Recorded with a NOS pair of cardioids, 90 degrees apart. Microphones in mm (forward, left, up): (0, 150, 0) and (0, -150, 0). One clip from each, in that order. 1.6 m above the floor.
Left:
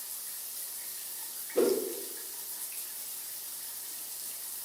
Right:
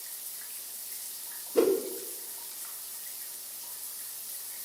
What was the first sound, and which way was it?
A whoosh, 45° right.